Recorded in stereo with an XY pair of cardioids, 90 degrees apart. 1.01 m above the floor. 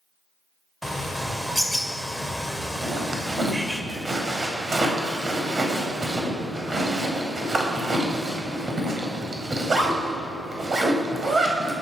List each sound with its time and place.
0.8 s a bird: 5° right, 2.5 m
2.8 s a zipper: 35° right, 4.5 m